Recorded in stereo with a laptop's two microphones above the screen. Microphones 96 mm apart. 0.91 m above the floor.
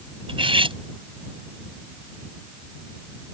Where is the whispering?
I don't hear whispering.